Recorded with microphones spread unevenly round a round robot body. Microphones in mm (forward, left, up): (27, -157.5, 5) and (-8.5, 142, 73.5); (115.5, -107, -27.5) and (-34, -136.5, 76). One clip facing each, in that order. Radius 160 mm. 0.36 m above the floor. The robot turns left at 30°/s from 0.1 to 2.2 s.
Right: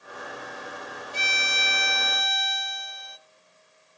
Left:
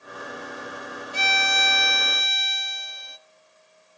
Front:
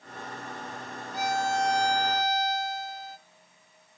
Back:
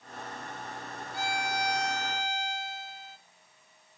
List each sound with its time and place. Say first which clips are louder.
1.1 s a violin: left 7 dB, front 6 dB; 70° left, 0.8 m; by 3.2 s 35° left, 0.8 m